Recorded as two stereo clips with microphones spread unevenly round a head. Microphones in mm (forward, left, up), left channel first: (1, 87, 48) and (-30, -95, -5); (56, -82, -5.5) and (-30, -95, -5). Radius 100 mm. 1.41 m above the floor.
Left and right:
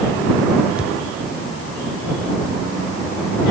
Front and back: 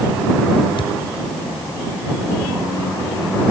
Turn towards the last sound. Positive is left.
turn(degrees=-15)